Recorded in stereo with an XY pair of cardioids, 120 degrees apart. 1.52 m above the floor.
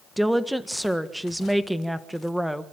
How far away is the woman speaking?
About 1.5 m.